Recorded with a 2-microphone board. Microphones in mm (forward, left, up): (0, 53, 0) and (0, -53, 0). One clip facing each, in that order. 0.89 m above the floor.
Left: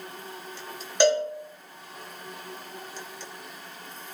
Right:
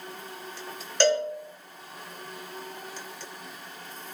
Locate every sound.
1.0 s a cowbell: 15° left (ahead or behind), 0.8 m